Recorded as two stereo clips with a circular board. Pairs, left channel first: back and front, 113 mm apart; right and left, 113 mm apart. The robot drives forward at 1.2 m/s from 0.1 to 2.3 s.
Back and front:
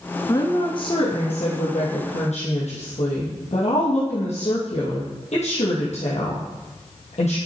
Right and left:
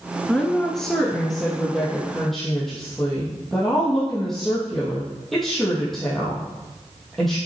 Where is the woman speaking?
170° right, 1.2 m; by 7.4 s straight behind, 3 m.